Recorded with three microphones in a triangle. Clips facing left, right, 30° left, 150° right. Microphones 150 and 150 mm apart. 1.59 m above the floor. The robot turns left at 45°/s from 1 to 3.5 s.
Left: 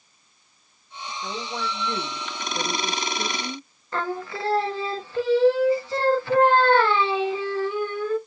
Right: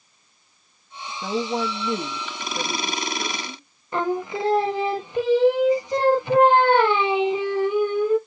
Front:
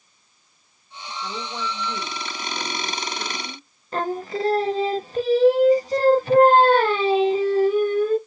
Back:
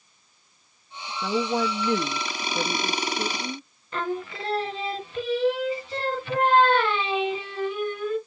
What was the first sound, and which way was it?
A woman speaking, 125° right.